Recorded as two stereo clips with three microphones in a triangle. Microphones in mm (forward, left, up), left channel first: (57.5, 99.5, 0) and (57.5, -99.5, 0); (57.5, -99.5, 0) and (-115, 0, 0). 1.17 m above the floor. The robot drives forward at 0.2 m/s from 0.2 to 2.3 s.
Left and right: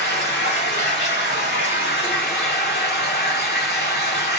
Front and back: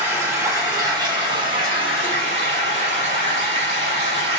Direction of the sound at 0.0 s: 75° left.